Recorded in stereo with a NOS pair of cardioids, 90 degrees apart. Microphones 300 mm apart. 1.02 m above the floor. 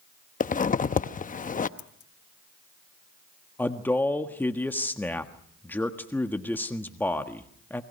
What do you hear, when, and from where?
0.4 s a zipper: 25° left, 0.8 m
1.8 s scissors: 55° left, 3 m
3.6 s a man speaking: 5° left, 1.5 m